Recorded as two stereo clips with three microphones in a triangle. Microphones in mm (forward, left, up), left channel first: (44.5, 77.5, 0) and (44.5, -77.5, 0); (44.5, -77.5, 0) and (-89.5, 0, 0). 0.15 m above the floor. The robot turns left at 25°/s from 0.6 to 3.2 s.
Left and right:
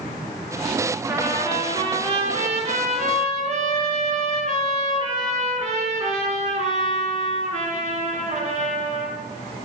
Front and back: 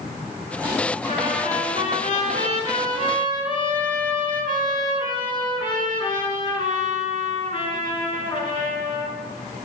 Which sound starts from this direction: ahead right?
A trumpet, at 1.1 s.